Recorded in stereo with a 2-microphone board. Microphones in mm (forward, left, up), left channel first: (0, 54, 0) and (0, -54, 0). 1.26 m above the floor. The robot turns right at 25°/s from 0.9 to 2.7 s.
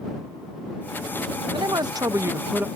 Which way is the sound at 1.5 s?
45° right (ahead or behind).